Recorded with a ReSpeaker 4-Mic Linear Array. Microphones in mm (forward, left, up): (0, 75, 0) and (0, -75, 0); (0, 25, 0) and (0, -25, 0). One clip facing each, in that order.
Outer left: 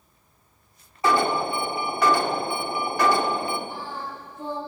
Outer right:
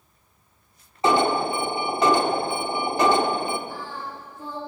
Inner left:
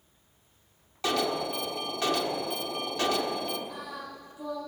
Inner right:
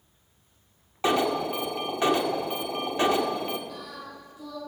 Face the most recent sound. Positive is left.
turn(degrees=20)  # may be behind; listen again after turning